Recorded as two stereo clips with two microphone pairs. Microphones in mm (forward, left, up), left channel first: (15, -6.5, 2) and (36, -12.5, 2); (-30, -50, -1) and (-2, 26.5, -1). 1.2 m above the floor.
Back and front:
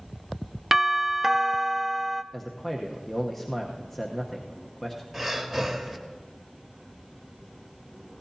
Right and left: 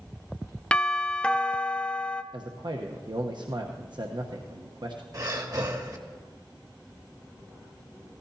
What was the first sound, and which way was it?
A doorbell, 65° right.